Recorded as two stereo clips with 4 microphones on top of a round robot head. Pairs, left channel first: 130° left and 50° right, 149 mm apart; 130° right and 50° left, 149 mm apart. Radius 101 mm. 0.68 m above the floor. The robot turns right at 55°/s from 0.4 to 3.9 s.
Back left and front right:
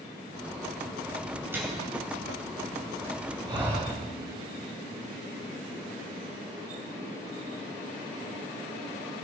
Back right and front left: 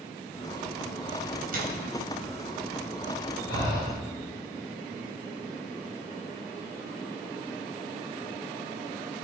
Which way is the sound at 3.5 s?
115° right.